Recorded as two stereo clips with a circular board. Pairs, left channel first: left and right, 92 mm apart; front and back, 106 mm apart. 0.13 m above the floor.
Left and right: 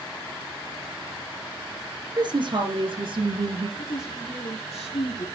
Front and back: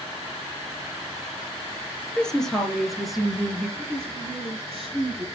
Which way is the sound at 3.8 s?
90° left.